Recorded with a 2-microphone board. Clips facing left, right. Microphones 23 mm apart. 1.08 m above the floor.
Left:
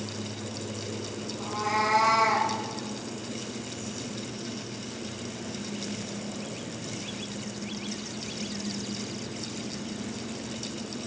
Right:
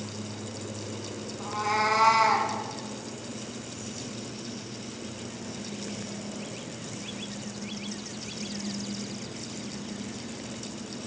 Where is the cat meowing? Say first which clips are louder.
Right 1 dB; 5° right (ahead or behind), 2 m; by 2.5 s 35° right (ahead or behind), 2 m.